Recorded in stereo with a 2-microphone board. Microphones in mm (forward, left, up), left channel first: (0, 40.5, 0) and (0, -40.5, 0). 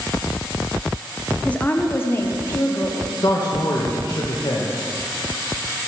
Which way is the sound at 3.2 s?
50° left (ahead or behind).